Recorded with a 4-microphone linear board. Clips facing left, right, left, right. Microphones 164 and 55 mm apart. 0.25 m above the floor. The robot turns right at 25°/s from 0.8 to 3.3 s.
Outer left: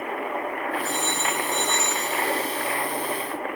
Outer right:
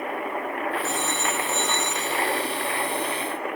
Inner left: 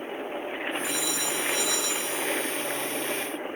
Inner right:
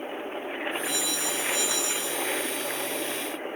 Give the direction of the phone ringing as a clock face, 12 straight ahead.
6 o'clock.